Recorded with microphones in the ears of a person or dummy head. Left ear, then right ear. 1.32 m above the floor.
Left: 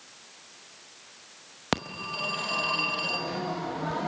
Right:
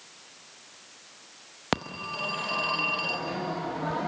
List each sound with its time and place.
1.7 s a phone ringing: centre (ahead or behind), 0.9 m